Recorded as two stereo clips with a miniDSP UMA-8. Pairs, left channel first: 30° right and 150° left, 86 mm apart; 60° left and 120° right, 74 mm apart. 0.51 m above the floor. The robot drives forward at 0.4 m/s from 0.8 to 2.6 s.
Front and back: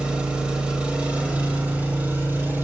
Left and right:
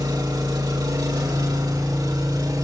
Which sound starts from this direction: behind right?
An engine running, at 0.0 s.